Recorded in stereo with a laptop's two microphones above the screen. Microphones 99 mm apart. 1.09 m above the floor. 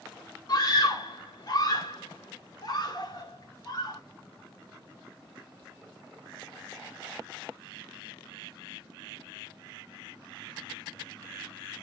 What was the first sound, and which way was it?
A scream, 45° left (ahead or behind).